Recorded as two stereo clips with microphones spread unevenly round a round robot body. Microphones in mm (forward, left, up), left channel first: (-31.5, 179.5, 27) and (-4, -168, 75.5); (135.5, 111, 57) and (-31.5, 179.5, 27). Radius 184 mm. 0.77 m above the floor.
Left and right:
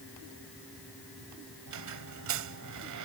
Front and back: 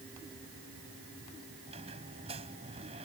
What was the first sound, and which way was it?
A squeak, 125° right.